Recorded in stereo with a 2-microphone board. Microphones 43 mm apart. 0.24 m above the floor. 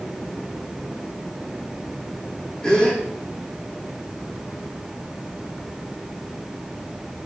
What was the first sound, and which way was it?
A gasp, 20° left (ahead or behind).